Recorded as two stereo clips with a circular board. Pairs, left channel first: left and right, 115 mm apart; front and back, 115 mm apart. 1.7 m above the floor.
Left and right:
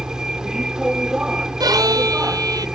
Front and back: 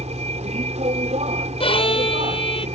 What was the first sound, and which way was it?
A vehicle, 175° right.